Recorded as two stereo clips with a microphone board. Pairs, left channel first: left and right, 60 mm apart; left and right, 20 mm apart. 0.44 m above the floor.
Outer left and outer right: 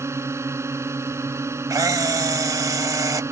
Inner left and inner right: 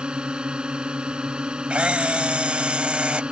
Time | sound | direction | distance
0.0 | a drone | 50° right (ahead or behind) | ?
1.7 | a camera shutter | 80° right | ?